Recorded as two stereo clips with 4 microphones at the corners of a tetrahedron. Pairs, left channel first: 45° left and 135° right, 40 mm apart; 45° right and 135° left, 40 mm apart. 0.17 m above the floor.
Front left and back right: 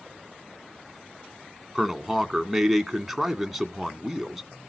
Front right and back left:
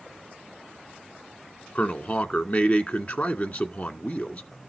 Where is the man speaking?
50° right, 1.6 m.